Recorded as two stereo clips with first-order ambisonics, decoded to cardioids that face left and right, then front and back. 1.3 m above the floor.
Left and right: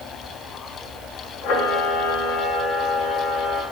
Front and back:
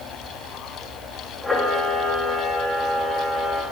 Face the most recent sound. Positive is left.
turn(degrees=85)